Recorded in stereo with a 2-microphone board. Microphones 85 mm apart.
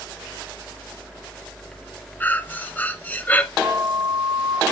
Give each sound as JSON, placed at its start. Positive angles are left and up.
{"t": 2.2, "sound": "breathing", "side_deg": 20, "distance_m": 0.6}
{"t": 3.6, "sound": "a flute", "side_deg": -55, "distance_m": 1.0}